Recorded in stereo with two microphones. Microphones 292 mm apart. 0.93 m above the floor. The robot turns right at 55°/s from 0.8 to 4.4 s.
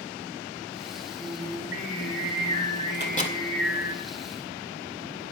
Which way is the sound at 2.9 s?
40° left (ahead or behind).